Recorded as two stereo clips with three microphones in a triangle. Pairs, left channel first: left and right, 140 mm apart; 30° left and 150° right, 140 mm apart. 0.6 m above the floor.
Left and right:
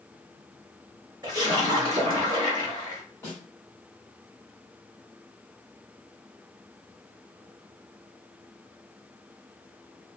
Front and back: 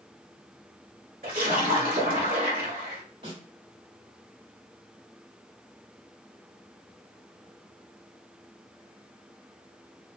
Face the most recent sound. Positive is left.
turn(degrees=165)